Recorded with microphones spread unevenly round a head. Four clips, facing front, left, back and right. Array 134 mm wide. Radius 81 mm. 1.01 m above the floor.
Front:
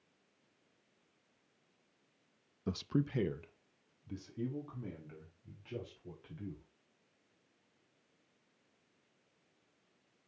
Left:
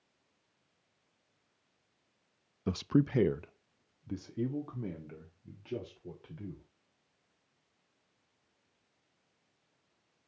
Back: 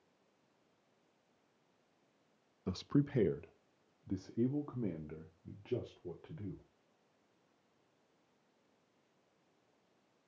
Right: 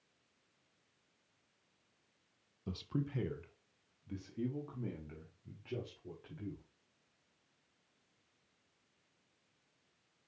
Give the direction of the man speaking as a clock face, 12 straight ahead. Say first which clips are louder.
Left 11 dB, back 1 dB; 10 o'clock.